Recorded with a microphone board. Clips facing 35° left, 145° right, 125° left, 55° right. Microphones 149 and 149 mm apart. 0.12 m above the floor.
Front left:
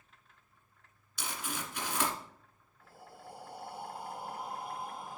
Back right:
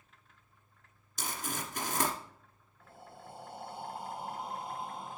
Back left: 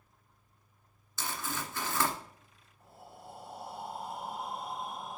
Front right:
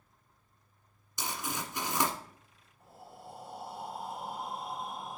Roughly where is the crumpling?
Behind right.